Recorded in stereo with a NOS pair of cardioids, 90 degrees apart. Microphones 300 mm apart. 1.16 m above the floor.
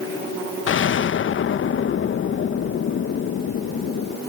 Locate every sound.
0.7 s an explosion: 40° left